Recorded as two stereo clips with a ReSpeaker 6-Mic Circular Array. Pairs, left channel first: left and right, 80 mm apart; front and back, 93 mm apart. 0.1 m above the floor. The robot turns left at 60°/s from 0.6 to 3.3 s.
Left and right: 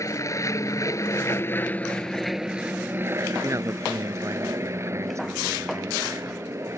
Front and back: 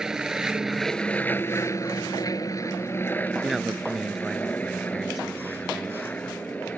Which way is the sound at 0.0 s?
100° left.